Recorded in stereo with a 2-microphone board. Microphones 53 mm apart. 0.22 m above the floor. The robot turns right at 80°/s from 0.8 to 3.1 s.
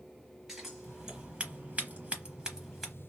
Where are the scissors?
Centre (ahead or behind), 1.1 m; by 2.9 s 5° right (ahead or behind), 1.1 m.